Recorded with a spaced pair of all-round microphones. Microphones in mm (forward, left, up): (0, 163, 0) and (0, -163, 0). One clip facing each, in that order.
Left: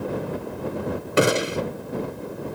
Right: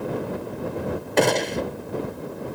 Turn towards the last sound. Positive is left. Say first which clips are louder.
# left 1 dB
turn(degrees=10)  # may be behind; listen again after turning